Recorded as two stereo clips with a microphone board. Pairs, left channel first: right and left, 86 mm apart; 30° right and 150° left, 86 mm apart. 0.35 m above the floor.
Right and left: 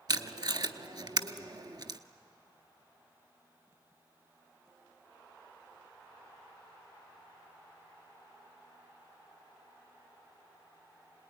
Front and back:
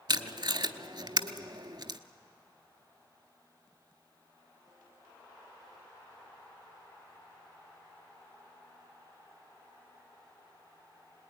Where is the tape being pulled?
125° left, 0.8 m.